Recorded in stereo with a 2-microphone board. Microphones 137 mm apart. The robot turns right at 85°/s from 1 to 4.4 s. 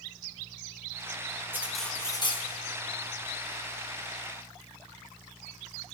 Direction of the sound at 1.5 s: 20° right.